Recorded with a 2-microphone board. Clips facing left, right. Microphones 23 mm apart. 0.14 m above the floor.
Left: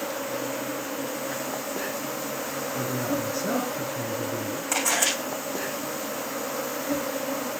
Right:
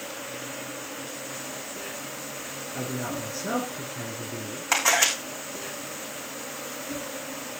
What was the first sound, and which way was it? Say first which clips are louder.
An insect: left 6 dB; 75° left (ahead or behind).